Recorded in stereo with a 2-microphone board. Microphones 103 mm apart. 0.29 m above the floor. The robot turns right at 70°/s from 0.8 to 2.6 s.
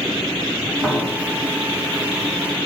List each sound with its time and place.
0.8 s a piano: 15° right (ahead or behind), 3 m; by 1.5 s 25° left (ahead or behind), 3 m